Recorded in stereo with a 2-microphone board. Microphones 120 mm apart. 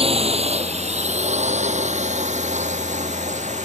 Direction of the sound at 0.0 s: 55° right (ahead or behind).